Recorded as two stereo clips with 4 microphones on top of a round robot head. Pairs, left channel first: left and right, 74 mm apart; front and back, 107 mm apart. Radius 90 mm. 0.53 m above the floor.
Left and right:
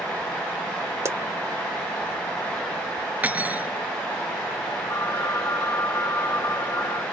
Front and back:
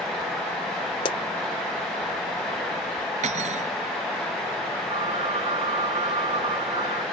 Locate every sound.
1.1 s a pop: 35° right
3.2 s cutlery clinking: 160° right
4.9 s a phone ringing: 145° left